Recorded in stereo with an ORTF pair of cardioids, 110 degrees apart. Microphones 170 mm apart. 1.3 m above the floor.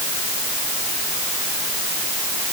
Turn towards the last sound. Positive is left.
No sound to turn to.